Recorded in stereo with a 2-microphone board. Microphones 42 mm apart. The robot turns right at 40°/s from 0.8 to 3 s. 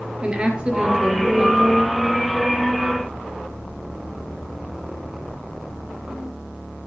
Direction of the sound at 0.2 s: 30° right.